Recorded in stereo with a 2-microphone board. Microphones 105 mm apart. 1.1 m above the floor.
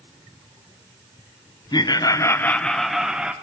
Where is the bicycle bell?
I don't hear a bicycle bell.